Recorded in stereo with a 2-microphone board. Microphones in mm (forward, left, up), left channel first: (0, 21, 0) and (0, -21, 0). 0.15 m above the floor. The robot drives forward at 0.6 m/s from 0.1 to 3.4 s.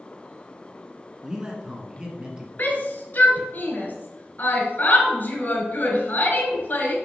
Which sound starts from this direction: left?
A shout, at 2.6 s.